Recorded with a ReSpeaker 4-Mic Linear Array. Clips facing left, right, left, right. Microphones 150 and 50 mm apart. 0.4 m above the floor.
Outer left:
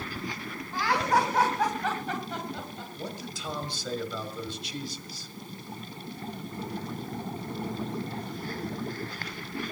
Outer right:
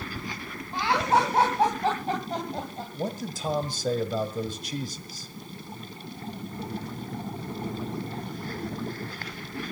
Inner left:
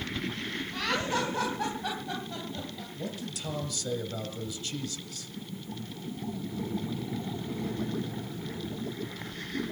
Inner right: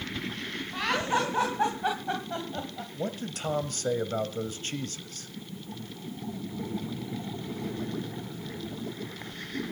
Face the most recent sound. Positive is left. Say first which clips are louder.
# outer right 8 dB, inner right 5 dB
turn(degrees=-45)  # may be behind; listen again after turning